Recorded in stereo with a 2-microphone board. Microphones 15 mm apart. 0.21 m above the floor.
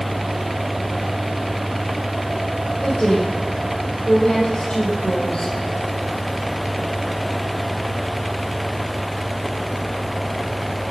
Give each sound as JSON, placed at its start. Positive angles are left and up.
{"t": 2.8, "sound": "a woman speaking", "side_deg": 75, "distance_m": 7.5}